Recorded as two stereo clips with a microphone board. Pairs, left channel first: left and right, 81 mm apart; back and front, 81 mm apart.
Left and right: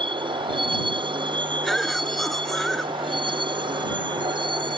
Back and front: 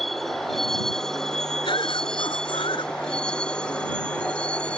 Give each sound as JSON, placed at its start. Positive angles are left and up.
{"t": 0.0, "sound": "a vehicle", "azimuth_deg": -95}
{"t": 1.6, "sound": "a cough", "azimuth_deg": 180}